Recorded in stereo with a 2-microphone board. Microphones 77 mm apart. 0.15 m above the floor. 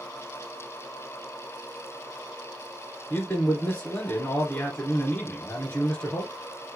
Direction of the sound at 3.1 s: 20° left (ahead or behind).